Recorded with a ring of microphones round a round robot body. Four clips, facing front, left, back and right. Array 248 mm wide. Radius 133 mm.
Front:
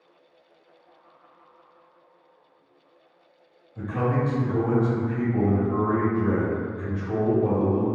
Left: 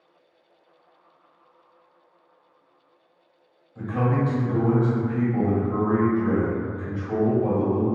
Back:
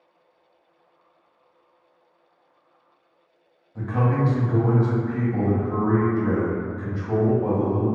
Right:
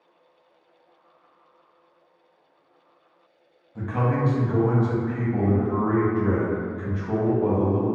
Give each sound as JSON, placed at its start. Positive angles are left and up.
{"t": 3.8, "sound": "a man speaking", "azimuth_deg": -130, "distance_m": 1.4}